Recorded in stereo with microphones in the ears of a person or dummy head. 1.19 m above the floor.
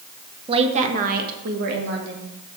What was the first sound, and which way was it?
A woman speaking, 25° right (ahead or behind).